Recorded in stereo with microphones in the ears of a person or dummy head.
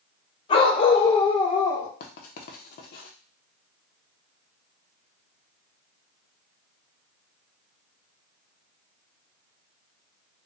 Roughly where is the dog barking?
Left.